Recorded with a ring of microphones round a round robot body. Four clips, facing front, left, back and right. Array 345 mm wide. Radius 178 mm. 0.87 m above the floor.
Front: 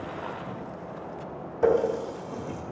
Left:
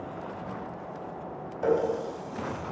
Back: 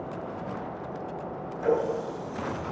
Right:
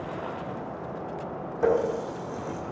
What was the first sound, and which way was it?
A running tap, 45° right.